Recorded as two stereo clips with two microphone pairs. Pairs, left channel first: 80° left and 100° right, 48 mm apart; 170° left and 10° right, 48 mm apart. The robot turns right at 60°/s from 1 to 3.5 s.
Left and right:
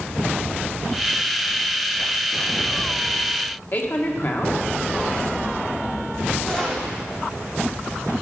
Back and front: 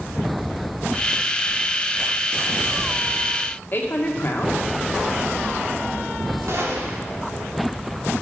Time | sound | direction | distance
3.7 | a man speaking | 125° left | 1.8 m
6.5 | a gunshot | 5° left | 3 m